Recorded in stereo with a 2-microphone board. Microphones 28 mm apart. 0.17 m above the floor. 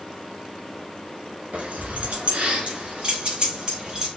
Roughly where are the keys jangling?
Right.